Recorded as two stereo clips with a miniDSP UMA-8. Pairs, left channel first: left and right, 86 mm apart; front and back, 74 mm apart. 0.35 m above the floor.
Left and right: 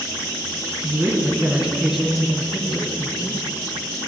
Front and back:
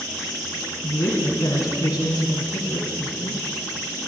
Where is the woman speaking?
30° right, 3 m; by 3.4 s 30° left, 3 m.